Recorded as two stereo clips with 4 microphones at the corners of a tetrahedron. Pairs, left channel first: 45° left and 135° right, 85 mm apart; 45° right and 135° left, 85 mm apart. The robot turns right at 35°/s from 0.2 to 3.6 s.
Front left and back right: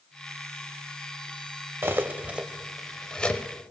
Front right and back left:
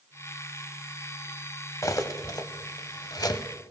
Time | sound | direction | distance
1.8 | cutlery clinking | 80° right | 0.8 m